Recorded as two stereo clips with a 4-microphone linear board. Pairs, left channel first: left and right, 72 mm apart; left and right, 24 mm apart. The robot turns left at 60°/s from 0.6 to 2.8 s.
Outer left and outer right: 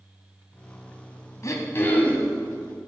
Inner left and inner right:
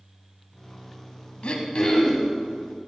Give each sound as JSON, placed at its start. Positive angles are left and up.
{"t": 1.4, "sound": "throat clearing", "azimuth_deg": 60, "distance_m": 1.7}